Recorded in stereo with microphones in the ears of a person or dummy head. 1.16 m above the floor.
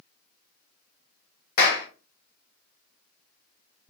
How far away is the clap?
About 0.8 m.